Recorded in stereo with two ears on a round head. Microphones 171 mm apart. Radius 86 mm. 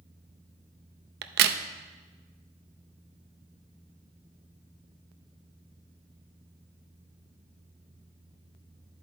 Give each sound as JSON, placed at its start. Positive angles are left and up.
{"t": 1.2, "sound": "a crack", "side_deg": -60, "distance_m": 0.6}